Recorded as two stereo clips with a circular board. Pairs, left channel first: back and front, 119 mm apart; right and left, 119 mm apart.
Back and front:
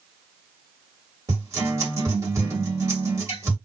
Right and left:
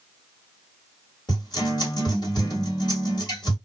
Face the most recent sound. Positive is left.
turn(degrees=-55)